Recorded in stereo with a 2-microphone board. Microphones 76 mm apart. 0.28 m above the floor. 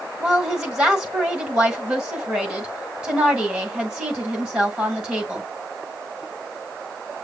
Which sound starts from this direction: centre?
A woman speaking, at 0.2 s.